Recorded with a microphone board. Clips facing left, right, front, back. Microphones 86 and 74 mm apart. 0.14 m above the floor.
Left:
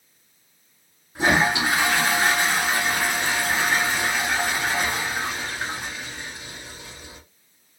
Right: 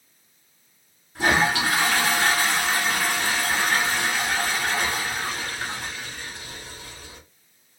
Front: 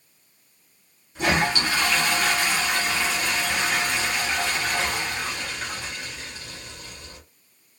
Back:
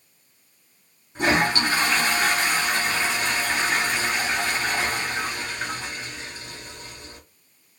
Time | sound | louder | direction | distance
1.1 | a toilet flushing | left 1 dB, back 2 dB | 150° left | 1.3 m